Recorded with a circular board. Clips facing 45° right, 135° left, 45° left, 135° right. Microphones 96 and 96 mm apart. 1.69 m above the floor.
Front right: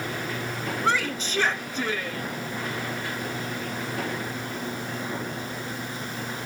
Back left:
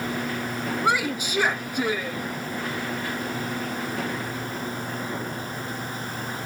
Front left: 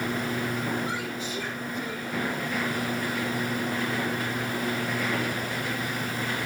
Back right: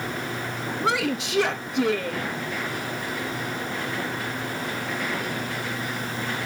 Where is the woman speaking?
145° right, 1.0 m.